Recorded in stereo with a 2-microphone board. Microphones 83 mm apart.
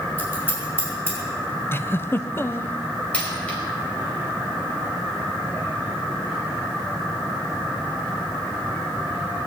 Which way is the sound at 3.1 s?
15° left (ahead or behind).